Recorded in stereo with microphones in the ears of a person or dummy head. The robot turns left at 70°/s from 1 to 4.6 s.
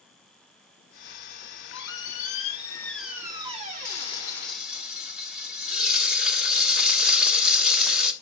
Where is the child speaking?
I don't hear a child speaking.